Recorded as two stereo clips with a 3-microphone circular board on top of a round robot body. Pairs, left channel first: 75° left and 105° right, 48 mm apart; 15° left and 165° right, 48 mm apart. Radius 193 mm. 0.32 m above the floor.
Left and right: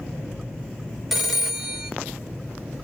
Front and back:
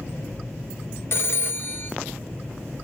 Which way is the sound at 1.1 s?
20° right.